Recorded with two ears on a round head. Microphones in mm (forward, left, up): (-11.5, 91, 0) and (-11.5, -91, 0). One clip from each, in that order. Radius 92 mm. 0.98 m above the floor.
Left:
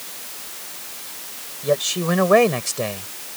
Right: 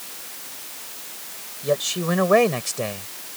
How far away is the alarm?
No alarm in this recording.